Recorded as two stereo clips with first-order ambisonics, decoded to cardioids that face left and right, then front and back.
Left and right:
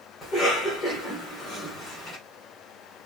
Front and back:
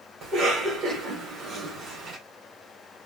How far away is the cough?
About 1.5 m.